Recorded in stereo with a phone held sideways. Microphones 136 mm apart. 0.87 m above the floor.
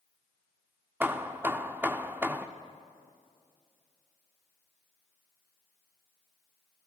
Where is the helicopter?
No helicopter in this recording.